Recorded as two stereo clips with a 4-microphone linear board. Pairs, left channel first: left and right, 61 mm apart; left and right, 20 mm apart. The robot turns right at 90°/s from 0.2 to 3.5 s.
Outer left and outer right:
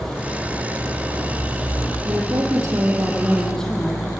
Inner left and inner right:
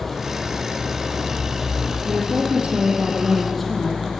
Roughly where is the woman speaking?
Behind right.